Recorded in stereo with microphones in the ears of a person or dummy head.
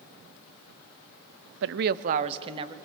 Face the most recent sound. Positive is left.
turn(degrees=-20)  # may be behind; listen again after turning